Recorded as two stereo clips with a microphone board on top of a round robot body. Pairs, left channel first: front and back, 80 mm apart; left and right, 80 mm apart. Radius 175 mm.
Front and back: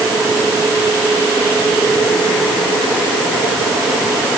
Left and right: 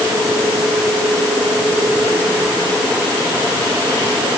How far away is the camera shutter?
I don't hear a camera shutter.